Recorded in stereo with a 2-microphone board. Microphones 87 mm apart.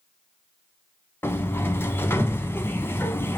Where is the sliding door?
25° left (ahead or behind), 1.0 m.